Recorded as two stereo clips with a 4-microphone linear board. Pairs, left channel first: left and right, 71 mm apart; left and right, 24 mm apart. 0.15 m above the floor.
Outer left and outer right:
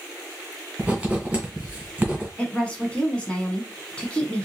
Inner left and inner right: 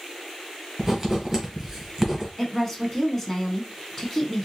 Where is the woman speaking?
15° left (ahead or behind), 1.1 m.